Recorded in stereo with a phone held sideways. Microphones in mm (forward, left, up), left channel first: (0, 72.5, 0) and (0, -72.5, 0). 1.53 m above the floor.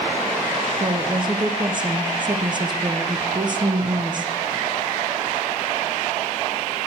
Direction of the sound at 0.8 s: 30° right (ahead or behind).